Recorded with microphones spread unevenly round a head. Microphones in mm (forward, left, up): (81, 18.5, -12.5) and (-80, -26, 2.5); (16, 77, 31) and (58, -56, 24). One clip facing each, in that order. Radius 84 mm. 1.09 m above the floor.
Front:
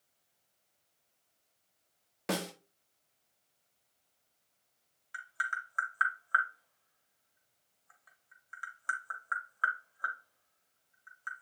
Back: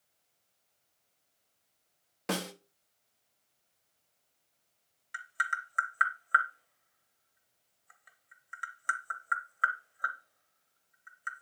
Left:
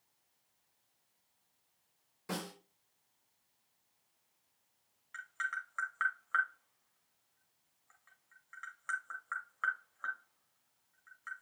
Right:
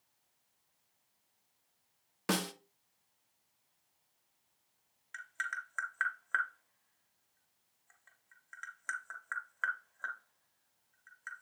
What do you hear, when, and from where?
2.3 s a snare drum: 70° right, 0.9 m
5.1 s tapping: 120° right, 1.2 m